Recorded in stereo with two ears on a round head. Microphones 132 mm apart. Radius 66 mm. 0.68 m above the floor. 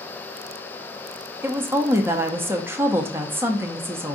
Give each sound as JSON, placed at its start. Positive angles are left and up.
{"t": 1.4, "sound": "a woman speaking", "side_deg": -15, "distance_m": 0.7}